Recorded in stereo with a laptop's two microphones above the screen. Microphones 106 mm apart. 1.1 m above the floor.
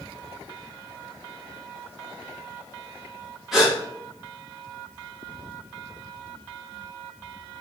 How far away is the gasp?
About 1.0 m.